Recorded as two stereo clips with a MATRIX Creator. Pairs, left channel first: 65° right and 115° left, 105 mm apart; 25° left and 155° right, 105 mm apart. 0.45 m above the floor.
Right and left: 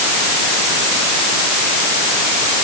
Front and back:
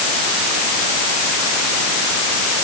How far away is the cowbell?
I don't hear a cowbell.